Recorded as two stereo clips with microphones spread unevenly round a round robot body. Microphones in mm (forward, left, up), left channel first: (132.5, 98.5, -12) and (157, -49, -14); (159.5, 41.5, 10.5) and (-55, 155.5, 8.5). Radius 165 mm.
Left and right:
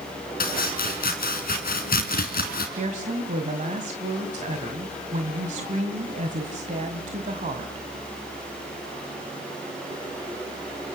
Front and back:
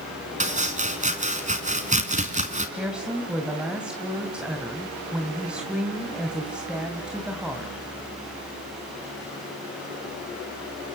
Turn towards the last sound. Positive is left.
turn(degrees=-120)